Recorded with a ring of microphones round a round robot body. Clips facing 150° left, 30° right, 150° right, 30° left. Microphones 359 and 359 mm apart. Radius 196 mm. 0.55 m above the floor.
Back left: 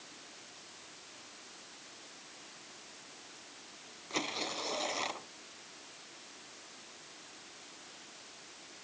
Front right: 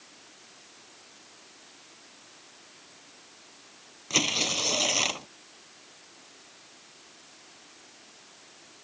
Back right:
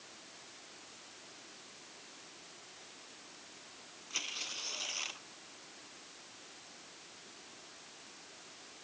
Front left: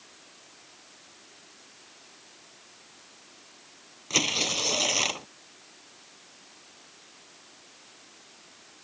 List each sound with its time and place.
4.1 s tearing paper: 10° left